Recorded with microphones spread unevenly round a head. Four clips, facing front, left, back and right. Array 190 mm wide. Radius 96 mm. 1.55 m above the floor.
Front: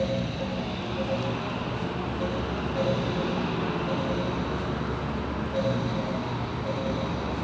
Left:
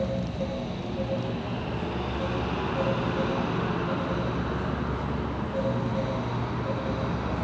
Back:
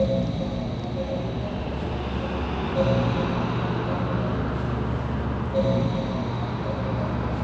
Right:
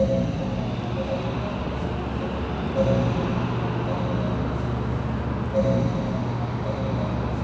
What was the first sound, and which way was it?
Only background noise.